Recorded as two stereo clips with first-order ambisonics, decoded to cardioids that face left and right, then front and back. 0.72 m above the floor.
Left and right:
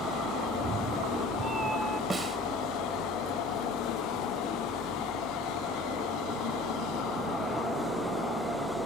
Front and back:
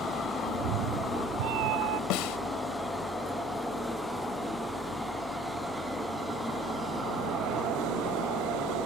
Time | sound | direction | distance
0.5 | a cat meowing | 160° right | ?
2.1 | a snare drum | 15° right | ?